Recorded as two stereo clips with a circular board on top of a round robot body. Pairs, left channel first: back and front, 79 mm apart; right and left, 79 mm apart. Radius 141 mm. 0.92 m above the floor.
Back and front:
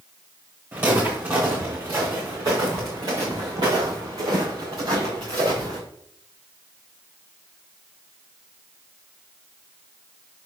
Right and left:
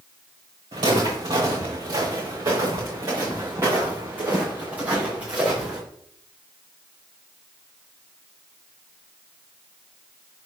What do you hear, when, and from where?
0.7 s footsteps: 60° left, 5 m; by 5.8 s 15° left, 6 m